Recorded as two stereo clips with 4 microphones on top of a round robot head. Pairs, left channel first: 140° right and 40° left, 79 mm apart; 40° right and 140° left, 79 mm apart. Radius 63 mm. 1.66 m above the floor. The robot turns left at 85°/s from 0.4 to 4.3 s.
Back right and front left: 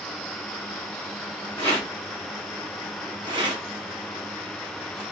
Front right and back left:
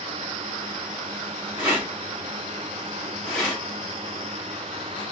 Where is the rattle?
170° right, 1.3 m; by 5.0 s 45° right, 1.3 m.